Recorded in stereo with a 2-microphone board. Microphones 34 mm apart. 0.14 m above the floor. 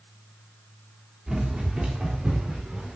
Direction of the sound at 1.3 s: 25° right (ahead or behind).